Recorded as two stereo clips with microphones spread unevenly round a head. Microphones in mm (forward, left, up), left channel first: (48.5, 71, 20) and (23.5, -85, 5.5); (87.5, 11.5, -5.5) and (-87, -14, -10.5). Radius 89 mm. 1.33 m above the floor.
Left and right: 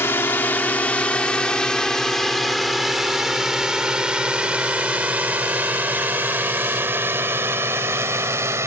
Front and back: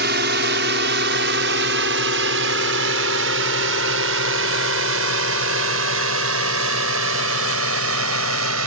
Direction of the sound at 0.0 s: 160° left.